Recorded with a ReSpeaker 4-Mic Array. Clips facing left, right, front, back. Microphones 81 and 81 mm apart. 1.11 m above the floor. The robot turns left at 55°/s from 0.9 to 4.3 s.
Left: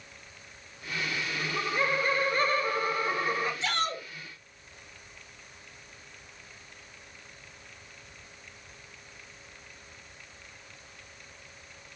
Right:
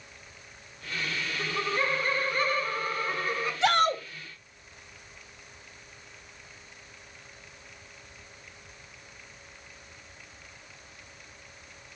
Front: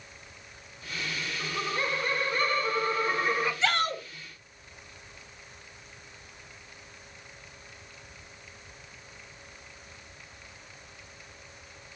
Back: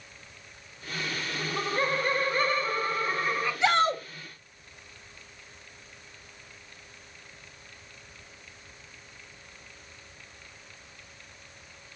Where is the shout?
110° right, 0.6 m; by 4.0 s 135° right, 0.6 m.